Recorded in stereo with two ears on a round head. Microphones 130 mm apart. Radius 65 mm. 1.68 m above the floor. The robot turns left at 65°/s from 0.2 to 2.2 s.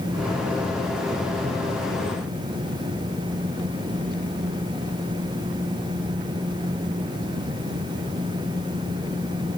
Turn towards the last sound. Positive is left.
No sound to turn to.